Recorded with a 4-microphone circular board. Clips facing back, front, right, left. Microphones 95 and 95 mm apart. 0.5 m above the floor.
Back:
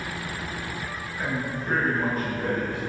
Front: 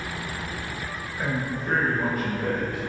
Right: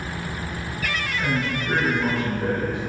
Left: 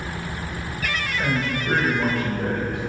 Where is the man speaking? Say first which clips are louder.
Front 1 dB, left 1 dB; 75° left, 2.5 m; by 2.8 s 90° left, 3 m.